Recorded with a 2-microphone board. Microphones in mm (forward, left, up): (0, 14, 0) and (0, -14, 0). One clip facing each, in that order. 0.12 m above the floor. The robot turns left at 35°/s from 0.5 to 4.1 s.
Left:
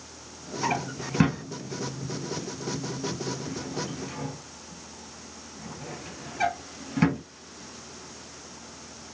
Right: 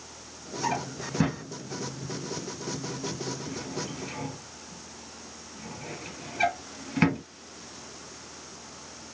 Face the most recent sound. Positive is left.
turn(degrees=-25)  # may be behind; listen again after turning